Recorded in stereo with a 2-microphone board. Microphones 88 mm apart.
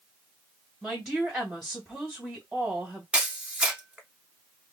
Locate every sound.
0.8 s a woman speaking: 5° right (ahead or behind), 1.7 m
3.1 s a camera shutter: 10° right (ahead or behind), 0.9 m